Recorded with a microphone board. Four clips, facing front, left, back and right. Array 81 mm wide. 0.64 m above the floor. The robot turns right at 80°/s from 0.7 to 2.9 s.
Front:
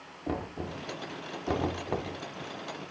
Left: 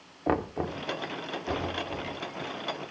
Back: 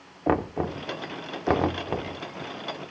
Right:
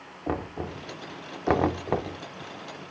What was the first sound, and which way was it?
Knocking, 160° left.